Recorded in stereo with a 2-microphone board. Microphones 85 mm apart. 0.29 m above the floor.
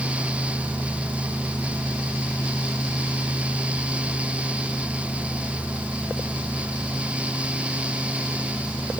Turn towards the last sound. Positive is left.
No sound to turn to.